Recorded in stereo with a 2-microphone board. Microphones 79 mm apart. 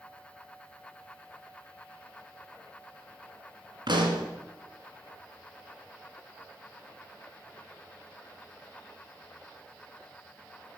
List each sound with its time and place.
3.9 s a pop: 75° right (ahead or behind), 2.5 m